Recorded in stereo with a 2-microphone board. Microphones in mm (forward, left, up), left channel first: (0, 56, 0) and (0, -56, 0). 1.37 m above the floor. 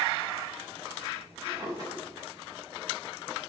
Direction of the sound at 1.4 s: 35° right (ahead or behind).